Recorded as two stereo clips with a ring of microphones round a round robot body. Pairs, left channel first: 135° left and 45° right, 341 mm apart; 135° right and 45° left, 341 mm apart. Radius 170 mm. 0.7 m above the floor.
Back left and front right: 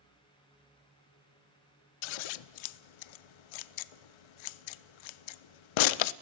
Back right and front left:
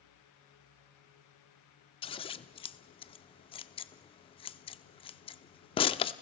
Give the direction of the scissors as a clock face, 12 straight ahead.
7 o'clock.